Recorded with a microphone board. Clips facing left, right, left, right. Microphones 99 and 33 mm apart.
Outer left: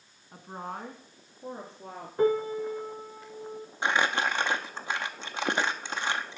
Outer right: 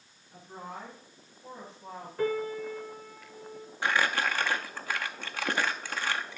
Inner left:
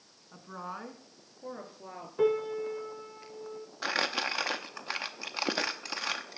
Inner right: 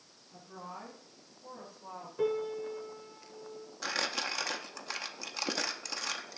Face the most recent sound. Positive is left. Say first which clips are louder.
# outer left 1 dB, inner left 4 dB
turn(degrees=20)  # may be behind; listen again after turning